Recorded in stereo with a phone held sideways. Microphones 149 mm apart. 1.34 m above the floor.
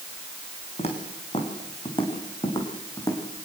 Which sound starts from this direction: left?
Footsteps, at 0.8 s.